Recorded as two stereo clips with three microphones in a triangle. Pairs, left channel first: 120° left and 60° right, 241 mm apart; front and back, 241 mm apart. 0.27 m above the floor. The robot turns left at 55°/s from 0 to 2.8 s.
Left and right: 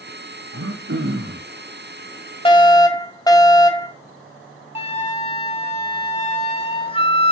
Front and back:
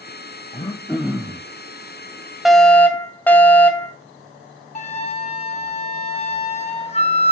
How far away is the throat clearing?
About 1.6 m.